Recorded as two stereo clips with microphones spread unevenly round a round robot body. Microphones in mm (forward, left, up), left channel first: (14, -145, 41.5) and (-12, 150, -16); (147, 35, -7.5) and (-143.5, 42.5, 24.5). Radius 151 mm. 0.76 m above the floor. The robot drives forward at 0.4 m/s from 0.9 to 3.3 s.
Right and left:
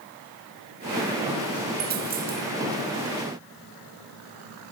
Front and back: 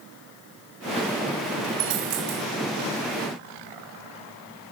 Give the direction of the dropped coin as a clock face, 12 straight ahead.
7 o'clock.